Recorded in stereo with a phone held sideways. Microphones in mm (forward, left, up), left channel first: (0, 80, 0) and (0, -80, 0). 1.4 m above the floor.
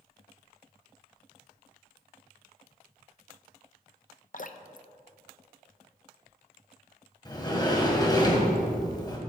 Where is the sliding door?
25° left (ahead or behind), 1.7 m.